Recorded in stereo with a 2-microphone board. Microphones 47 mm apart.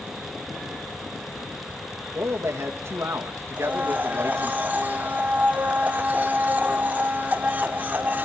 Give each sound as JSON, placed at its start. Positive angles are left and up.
{"t": 2.1, "sound": "a man speaking", "side_deg": -70, "distance_m": 2.5}
{"t": 3.6, "sound": "a blender", "side_deg": -35, "distance_m": 1.9}